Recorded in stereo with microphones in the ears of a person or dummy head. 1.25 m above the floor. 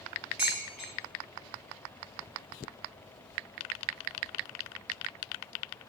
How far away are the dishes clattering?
About 0.7 m.